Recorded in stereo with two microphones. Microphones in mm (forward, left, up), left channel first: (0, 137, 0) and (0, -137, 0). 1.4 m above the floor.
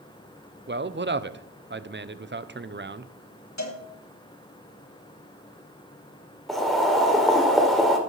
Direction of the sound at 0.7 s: 40° right (ahead or behind).